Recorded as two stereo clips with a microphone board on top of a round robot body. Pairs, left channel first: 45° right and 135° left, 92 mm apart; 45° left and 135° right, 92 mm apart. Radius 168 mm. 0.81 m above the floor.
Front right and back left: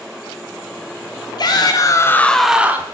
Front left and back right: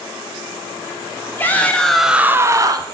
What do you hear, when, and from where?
1.4 s a shout: 20° right, 0.9 m; by 2.8 s 165° right, 0.7 m